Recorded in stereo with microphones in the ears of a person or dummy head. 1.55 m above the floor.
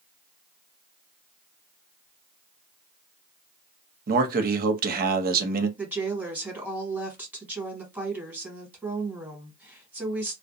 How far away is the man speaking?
About 0.6 m.